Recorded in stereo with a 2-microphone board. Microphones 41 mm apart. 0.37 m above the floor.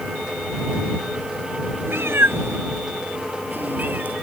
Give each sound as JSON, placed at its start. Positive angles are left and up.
{"t": 1.9, "sound": "a cat meowing", "side_deg": -75}